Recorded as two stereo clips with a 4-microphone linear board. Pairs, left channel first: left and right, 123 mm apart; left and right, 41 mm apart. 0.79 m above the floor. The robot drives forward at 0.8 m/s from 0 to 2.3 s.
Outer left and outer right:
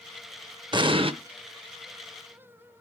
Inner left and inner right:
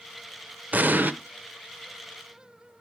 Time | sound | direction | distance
0.7 | an explosion | 40° right (ahead or behind) | 0.7 m